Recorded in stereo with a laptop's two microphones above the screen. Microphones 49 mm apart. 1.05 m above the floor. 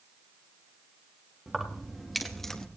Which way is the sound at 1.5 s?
5° right (ahead or behind).